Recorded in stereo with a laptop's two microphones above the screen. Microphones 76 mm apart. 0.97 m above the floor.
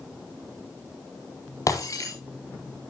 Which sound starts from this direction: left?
Breaking glass, at 1.7 s.